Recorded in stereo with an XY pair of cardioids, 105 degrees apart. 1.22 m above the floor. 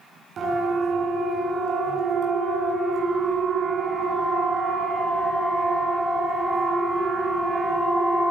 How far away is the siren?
About 9.5 m.